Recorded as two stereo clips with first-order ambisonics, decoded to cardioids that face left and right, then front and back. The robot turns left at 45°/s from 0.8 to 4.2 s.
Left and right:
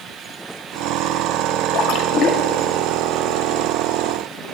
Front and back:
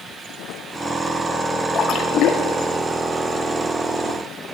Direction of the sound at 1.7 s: 60° left.